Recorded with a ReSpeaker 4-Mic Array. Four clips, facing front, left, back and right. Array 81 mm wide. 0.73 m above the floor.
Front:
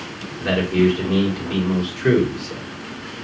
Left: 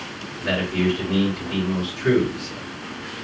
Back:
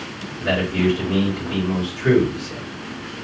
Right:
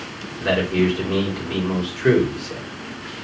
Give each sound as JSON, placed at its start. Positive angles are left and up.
{"t": 0.4, "sound": "a man speaking", "azimuth_deg": -50, "distance_m": 1.4}